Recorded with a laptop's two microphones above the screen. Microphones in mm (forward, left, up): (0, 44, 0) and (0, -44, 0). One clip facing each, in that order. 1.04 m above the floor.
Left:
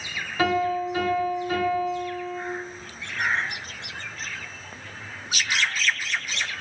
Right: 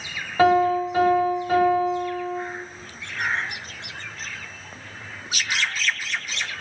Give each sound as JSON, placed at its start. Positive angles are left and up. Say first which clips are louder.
{"t": 0.4, "sound": "a piano", "louder": "right 6 dB", "side_deg": -35, "distance_m": 0.9}